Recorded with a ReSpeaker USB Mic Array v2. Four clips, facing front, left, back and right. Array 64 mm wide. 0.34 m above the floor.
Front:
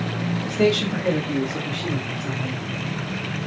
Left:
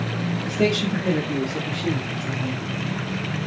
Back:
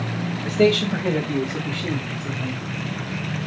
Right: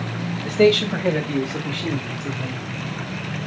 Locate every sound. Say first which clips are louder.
0.5 s a man speaking: right 7 dB, back 3 dB; 105° right, 1.4 m; by 2.6 s 90° right, 2 m